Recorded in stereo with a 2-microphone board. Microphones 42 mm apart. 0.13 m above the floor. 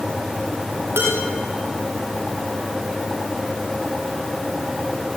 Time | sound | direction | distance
1.0 | dishes clattering | 60° right (ahead or behind) | 8 m